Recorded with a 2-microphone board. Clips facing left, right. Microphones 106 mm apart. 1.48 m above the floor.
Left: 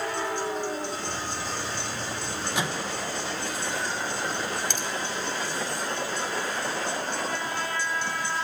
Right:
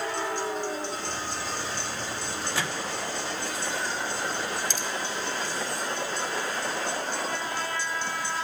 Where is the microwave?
20° left (ahead or behind), 1.3 m.